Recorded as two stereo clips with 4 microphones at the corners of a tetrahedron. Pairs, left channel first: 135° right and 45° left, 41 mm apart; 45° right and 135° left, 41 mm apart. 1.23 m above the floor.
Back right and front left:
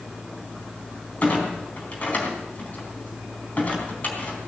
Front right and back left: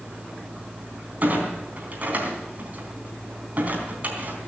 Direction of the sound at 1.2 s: 175° left.